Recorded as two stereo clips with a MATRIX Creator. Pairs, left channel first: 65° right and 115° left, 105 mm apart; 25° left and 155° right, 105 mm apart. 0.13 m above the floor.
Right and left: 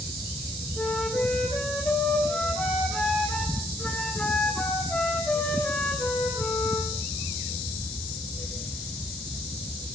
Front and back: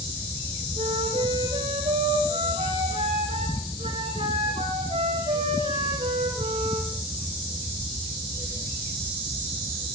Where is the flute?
140° right, 2.5 m.